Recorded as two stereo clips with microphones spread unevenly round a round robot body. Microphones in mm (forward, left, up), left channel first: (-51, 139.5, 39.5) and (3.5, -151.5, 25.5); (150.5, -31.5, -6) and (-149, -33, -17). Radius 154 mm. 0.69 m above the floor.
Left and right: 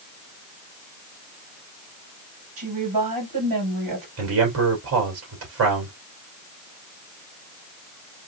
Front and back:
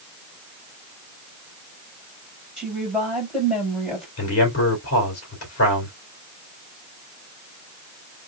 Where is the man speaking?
40° right, 2.5 m.